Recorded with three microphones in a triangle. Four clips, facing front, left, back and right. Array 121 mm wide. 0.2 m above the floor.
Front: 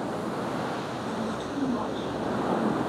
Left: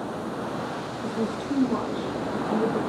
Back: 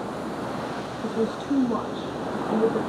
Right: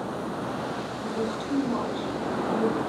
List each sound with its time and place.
1.0 s a woman speaking: 160° left, 4 m